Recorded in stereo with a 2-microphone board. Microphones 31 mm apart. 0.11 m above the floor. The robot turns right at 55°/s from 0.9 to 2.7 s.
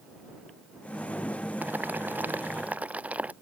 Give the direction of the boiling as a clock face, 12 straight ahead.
4 o'clock.